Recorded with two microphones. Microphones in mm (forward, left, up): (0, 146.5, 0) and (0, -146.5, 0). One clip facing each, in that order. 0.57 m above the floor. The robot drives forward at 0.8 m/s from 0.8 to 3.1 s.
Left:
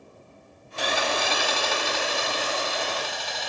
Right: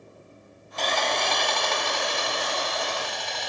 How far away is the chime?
I don't hear a chime.